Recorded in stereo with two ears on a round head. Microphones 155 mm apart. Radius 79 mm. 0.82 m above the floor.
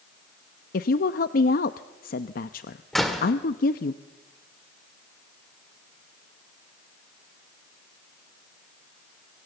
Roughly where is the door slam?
Centre.